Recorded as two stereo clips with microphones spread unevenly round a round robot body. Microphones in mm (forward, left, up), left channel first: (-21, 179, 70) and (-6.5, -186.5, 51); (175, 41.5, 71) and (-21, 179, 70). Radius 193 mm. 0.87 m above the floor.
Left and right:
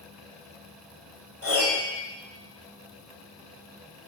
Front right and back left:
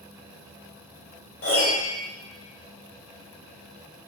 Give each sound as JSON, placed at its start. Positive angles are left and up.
{"t": 1.4, "sound": "a piano", "azimuth_deg": -40, "distance_m": 2.0}